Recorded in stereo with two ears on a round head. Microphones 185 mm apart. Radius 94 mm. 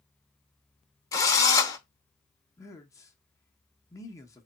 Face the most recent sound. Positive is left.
turn(degrees=15)  # may be behind; listen again after turning